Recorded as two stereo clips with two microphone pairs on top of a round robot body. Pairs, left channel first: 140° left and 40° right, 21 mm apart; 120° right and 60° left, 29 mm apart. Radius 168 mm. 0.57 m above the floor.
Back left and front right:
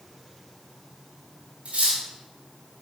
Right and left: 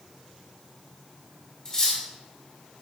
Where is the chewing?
No chewing in this recording.